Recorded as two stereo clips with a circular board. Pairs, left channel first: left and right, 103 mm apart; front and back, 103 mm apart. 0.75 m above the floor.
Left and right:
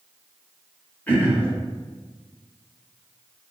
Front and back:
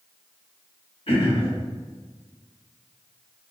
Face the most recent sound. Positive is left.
turn(degrees=15)